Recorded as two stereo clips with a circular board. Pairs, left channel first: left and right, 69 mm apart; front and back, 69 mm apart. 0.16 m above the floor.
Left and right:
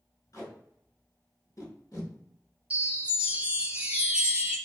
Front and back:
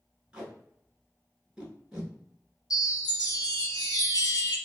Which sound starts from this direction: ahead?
A chime, at 2.7 s.